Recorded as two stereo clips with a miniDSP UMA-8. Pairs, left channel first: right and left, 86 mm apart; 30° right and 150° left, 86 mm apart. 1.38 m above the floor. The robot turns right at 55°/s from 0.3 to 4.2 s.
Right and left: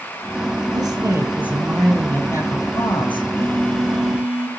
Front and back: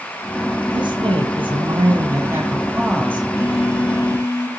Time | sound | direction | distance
0.7 | a woman speaking | 120° left | 9.5 m
3.3 | a phone buzzing | 35° right | 1.9 m